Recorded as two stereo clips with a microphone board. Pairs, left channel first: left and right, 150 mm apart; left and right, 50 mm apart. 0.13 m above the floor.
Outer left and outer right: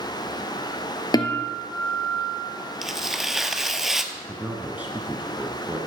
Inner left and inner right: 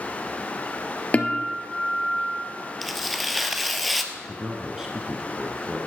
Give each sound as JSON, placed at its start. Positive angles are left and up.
{"t": 1.1, "sound": "a guitar", "side_deg": 25, "distance_m": 1.3}
{"t": 2.8, "sound": "tearing paper", "side_deg": 0, "distance_m": 0.9}
{"t": 4.1, "sound": "a man speaking", "side_deg": -10, "distance_m": 1.4}